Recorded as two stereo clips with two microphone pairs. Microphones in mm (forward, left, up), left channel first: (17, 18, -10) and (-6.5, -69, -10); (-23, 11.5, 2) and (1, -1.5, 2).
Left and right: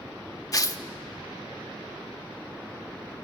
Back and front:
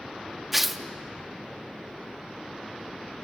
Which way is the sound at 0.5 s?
50° left.